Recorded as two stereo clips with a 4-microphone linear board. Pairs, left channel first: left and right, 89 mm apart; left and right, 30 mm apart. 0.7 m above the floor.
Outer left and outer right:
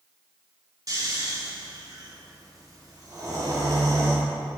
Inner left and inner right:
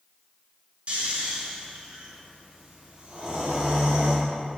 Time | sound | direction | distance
0.9 | snoring | 45° right (ahead or behind) | 1.4 m